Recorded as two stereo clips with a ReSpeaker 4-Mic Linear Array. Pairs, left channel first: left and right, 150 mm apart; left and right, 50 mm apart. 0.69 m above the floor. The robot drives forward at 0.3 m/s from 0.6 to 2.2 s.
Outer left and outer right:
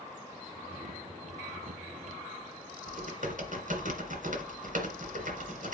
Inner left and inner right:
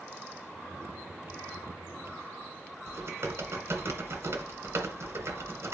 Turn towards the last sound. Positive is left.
turn(degrees=-60)  # may be behind; listen again after turning